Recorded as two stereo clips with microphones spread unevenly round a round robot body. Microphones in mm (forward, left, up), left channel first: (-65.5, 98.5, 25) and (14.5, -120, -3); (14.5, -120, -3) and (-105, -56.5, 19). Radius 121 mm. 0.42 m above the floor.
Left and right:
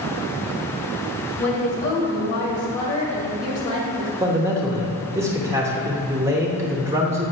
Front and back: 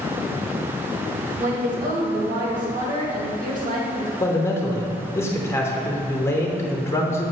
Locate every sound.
1.4 s a woman speaking: 170° left, 2 m
4.2 s a man speaking: 25° right, 0.9 m